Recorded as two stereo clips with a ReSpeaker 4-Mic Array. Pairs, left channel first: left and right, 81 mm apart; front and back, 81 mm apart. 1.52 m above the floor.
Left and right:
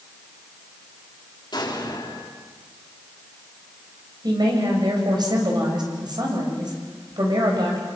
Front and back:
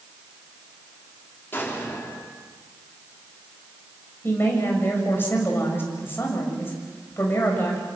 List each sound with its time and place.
1.5 s an explosion: 65° left, 4.5 m
4.2 s a woman speaking: 60° right, 6.5 m